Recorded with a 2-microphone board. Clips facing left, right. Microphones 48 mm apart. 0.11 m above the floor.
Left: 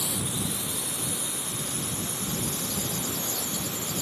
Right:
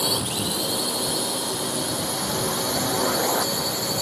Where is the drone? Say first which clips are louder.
Right 6 dB; 70° right (ahead or behind).